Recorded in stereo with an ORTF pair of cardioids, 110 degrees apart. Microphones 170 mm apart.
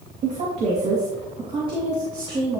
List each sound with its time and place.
0.2 s a woman speaking: 45° right, 2 m; by 2.6 s 25° right, 3 m